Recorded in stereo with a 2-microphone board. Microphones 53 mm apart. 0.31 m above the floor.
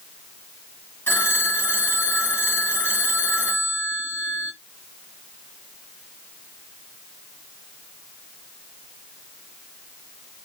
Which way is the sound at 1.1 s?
35° left (ahead or behind).